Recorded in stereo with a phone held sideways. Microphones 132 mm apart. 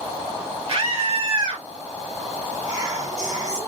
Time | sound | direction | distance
0.7 | a scream | 50° right (ahead or behind) | 1.7 m
2.7 | whispering | 65° right (ahead or behind) | 0.8 m